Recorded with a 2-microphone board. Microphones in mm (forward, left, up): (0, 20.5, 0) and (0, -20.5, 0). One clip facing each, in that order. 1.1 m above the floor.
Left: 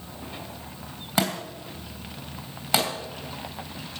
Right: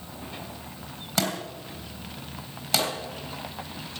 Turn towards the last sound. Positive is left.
turn(degrees=25)  # may be behind; listen again after turning